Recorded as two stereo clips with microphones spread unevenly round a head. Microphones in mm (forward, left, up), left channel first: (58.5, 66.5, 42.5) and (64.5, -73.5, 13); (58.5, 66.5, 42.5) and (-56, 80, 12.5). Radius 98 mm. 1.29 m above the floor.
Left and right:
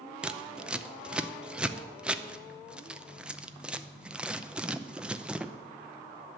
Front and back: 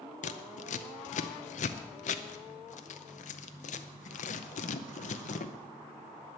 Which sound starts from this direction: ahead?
Scissors, at 0.2 s.